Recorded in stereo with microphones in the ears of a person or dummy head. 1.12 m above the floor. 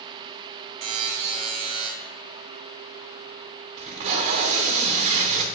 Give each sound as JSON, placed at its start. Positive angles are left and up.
{"t": 0.8, "sound": "a buzzer", "side_deg": -35, "distance_m": 1.2}
{"t": 3.8, "sound": "tape being pulled", "side_deg": -25, "distance_m": 0.6}